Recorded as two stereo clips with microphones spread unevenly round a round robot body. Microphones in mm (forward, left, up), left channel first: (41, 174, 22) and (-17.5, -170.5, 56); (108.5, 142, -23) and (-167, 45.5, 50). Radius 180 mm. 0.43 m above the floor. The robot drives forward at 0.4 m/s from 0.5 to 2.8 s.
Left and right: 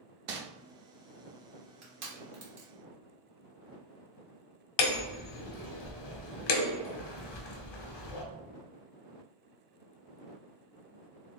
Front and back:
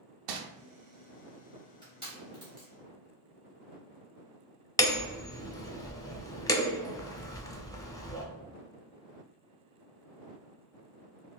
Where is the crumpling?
155° right, 0.6 m.